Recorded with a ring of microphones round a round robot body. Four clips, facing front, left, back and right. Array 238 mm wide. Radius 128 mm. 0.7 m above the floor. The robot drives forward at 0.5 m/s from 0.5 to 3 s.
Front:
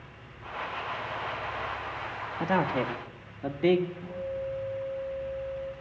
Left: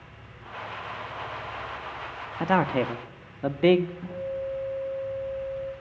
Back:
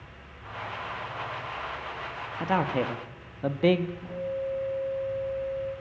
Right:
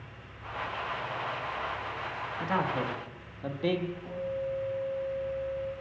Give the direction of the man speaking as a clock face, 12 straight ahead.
9 o'clock.